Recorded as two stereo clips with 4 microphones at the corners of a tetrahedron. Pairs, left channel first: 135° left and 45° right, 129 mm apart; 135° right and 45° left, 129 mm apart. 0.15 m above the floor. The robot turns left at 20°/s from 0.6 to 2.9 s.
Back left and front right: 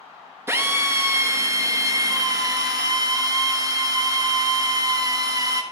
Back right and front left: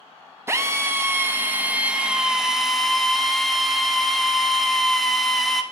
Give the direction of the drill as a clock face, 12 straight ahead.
12 o'clock.